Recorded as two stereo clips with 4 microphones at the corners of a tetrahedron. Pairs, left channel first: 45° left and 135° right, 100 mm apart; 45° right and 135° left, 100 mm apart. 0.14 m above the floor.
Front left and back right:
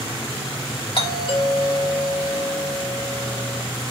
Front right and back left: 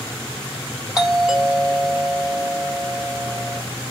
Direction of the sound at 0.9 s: 50° left.